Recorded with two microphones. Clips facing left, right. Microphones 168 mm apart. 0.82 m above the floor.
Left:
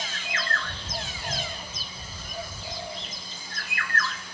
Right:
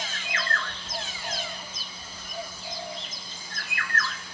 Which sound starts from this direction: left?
A bird, at 0.6 s.